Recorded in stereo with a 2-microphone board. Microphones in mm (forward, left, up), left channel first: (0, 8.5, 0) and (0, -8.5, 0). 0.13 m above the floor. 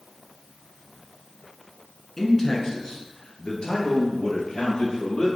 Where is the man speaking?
25° left (ahead or behind), 1.3 m; by 5.3 s 65° left (ahead or behind), 3.5 m.